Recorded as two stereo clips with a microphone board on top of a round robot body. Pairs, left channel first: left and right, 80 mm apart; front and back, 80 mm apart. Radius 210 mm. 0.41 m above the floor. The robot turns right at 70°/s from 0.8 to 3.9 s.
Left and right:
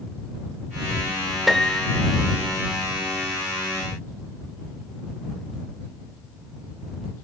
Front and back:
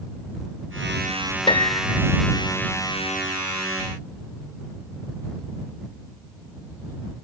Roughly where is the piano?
Ahead.